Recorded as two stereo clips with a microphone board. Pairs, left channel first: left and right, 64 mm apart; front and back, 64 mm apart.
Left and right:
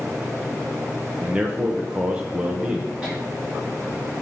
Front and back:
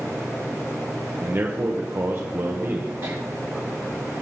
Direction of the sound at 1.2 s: 150° right.